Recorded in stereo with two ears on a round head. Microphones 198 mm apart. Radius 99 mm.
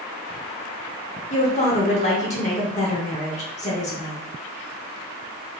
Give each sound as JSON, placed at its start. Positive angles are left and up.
{"t": 1.3, "sound": "a woman speaking", "side_deg": 35, "distance_m": 0.9}